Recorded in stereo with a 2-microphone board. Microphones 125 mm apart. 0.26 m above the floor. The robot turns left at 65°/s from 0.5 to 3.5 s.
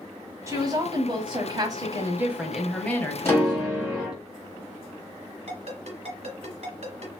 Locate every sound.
0.5 s a woman speaking: 45° right, 1.2 m; by 4.2 s 120° left, 1.2 m
3.2 s a piano: 20° left (ahead or behind), 1.7 m; by 4.2 s 10° left (ahead or behind), 1.7 m
5.5 s a ringtone: 60° right (ahead or behind), 2 m